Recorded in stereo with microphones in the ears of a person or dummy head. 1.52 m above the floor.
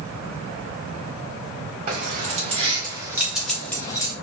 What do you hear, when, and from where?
1.9 s keys jangling: 45° right (ahead or behind), 1.6 m; by 4.1 s 25° left (ahead or behind), 1.4 m